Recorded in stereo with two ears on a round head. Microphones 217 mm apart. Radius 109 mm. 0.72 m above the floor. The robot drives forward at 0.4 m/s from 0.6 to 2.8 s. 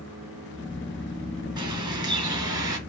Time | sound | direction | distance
1.6 | a bird | 20° right (ahead or behind) | 4.5 m